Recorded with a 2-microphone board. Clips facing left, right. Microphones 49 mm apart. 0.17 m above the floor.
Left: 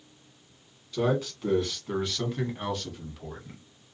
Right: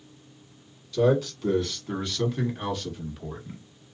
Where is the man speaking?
15° left (ahead or behind), 1.6 m; by 3.6 s 5° right (ahead or behind), 1.3 m.